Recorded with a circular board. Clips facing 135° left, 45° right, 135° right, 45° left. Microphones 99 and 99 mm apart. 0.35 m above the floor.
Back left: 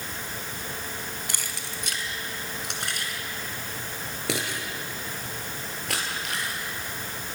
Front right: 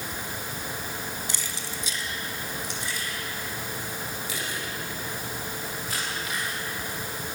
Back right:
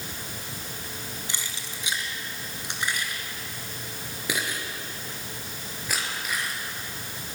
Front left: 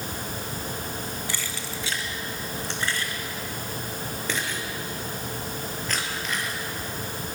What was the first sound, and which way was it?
Keys jangling, 155° left.